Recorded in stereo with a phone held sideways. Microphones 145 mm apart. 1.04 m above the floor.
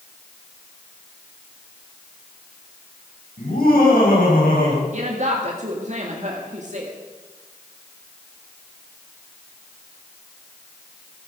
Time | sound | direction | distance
3.4 | laughter | 80° left | 7 m
4.9 | a woman speaking | 55° right (ahead or behind) | 1.9 m